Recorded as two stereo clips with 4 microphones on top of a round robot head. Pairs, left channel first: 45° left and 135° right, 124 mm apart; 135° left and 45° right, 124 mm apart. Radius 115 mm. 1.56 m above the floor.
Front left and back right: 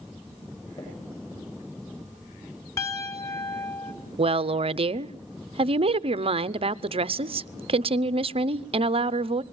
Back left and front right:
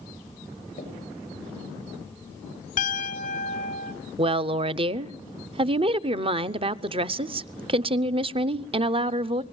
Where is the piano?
115° left, 2.5 m.